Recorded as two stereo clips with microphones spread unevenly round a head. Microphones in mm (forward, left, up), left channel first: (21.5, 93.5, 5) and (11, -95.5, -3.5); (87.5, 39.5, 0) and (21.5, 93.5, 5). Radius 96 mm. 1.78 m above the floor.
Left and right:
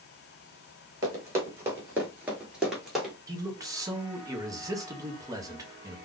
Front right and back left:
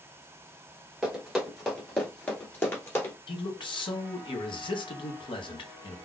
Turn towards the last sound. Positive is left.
turn(degrees=-20)